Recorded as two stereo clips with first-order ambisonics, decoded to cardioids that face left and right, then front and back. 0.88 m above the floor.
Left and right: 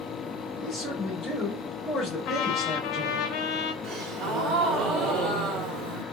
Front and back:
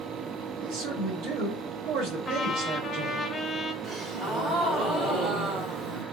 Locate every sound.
0.6 s a man speaking: 155° left, 1.6 m
2.2 s a trumpet: 75° left, 0.6 m
3.8 s a gasp: 120° right, 1.3 m